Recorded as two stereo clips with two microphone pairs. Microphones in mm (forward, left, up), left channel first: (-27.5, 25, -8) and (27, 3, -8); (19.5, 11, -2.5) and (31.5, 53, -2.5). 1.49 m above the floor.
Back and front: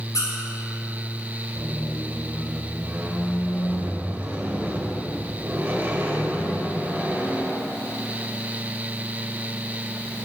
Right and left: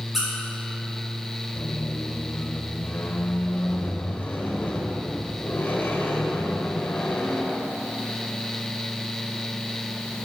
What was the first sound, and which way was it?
A squeak, 160° left.